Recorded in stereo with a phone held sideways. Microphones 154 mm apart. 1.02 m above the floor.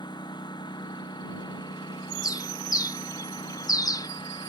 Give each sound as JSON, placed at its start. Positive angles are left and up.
{"t": 0.0, "sound": "a lawn mower", "side_deg": 30}
{"t": 2.2, "sound": "a bird", "side_deg": 25}